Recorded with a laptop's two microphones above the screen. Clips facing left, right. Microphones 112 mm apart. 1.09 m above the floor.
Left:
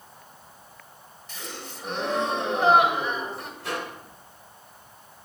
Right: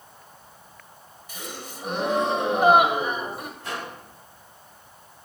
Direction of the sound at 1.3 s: 15° right (ahead or behind).